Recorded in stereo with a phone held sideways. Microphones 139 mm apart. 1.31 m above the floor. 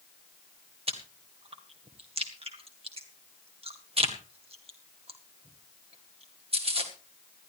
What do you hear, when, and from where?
0.9 s chewing: 45° right (ahead or behind), 2 m